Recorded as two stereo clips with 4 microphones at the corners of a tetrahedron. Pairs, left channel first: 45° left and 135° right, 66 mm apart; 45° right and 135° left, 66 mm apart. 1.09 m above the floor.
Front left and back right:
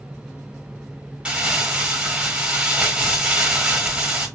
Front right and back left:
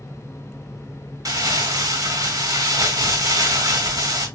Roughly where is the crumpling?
Behind left.